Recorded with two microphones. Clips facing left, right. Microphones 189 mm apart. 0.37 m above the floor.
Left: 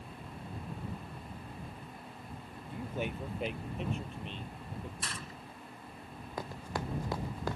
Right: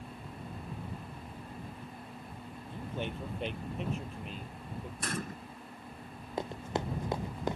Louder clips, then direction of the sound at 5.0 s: Right 7 dB; 50° right (ahead or behind).